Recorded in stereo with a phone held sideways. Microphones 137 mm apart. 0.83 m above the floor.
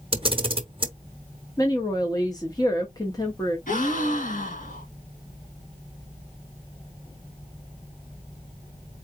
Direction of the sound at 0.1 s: 40° right (ahead or behind).